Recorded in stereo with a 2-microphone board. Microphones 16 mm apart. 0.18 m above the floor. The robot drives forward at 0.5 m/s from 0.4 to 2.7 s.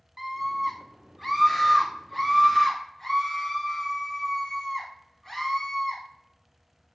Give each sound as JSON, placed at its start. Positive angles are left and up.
{"t": 0.2, "sound": "a scream", "side_deg": -10, "distance_m": 1.2}